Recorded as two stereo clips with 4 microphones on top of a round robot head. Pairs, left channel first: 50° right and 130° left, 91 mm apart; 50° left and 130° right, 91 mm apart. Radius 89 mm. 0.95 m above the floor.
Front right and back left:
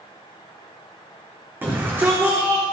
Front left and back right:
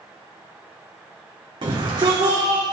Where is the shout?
165° right, 4 m; by 2.6 s 170° right, 3 m.